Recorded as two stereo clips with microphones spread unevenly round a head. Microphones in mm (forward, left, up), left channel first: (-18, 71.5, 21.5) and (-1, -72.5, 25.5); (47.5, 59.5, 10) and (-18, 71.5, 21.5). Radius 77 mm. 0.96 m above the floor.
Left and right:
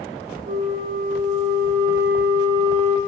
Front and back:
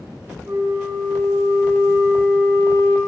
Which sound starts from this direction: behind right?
A flute, at 0.5 s.